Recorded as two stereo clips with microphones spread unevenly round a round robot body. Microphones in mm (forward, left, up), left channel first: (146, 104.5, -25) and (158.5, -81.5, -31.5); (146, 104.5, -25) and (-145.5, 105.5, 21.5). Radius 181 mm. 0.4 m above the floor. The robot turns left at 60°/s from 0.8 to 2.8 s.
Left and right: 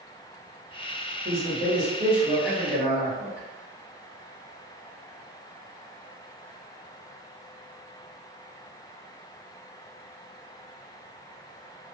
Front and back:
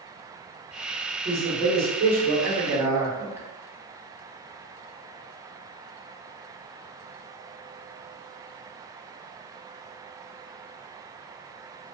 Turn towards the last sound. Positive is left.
turn(degrees=165)